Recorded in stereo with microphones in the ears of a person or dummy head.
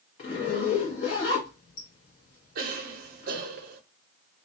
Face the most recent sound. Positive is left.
turn(degrees=-50)  # may be behind; listen again after turning